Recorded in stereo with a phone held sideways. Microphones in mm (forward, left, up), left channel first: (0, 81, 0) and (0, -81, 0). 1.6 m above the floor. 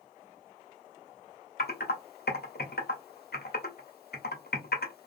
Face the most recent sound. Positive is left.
turn(degrees=75)  # may be behind; listen again after turning